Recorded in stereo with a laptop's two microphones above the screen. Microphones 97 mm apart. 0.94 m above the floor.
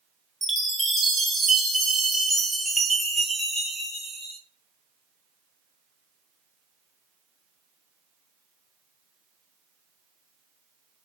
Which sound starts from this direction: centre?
A chime, at 0.4 s.